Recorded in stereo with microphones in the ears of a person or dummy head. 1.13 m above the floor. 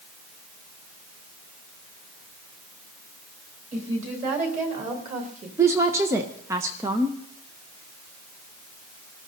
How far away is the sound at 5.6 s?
About 0.7 m.